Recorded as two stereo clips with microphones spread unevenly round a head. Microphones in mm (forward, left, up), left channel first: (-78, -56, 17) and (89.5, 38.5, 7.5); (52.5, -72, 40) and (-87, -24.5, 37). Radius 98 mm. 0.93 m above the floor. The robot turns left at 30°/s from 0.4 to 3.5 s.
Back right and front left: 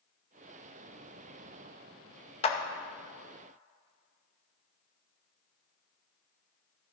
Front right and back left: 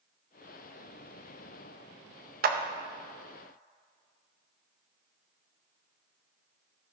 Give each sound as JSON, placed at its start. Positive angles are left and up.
{"t": 2.4, "sound": "a clap", "azimuth_deg": 150, "distance_m": 0.7}